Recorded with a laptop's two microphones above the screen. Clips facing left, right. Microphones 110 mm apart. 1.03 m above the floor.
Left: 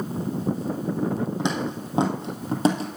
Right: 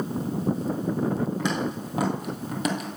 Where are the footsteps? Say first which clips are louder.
Left 1 dB; 20° left (ahead or behind), 2.5 m; by 2.9 s 35° left (ahead or behind), 2 m.